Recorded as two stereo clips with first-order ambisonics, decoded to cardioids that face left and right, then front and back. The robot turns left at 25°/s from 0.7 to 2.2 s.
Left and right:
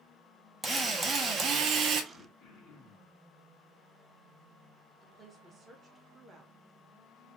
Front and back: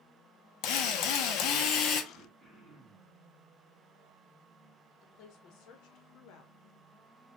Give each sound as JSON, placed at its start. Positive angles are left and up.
{"t": 0.6, "sound": "a drill", "azimuth_deg": -10, "distance_m": 0.7}
{"t": 2.1, "sound": "throat clearing", "azimuth_deg": 95, "distance_m": 1.4}
{"t": 5.0, "sound": "a woman speaking", "azimuth_deg": -20, "distance_m": 0.9}